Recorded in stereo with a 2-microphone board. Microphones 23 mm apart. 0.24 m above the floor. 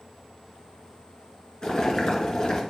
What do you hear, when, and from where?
1.6 s boiling: 35° left (ahead or behind), 1.7 m